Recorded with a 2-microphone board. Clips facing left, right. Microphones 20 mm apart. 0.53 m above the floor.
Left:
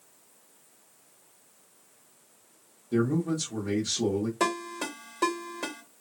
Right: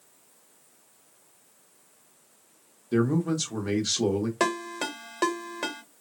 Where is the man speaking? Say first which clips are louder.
Right 2 dB; 40° right (ahead or behind), 0.9 m.